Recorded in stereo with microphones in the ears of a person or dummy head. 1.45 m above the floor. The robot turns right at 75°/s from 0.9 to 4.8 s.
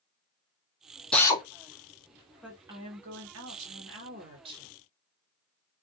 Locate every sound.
1.1 s a drill: 5° left (ahead or behind), 0.7 m; by 1.4 s 25° left (ahead or behind), 0.7 m
2.4 s a woman speaking: straight behind, 1.1 m; by 4.8 s 5° right, 1.1 m